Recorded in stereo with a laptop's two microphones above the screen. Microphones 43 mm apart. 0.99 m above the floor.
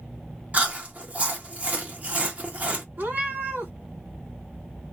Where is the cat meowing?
50° right (ahead or behind), 1.2 m.